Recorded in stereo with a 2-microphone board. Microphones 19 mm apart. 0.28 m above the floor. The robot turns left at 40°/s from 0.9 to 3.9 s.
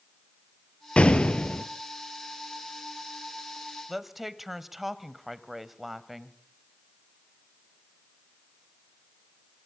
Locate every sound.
1.0 s an explosion: 90° left, 1.4 m; by 1.6 s 65° left (ahead or behind), 1.4 m
3.9 s a woman speaking: 10° right (ahead or behind), 1.1 m